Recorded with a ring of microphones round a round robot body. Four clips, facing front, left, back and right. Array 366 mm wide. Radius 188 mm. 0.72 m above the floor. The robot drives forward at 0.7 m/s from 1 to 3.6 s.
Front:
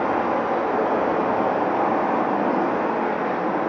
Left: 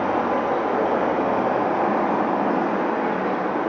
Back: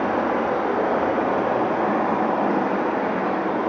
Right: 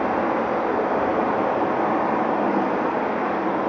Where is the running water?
115° left, 2.5 m; by 3.7 s 145° left, 3.5 m.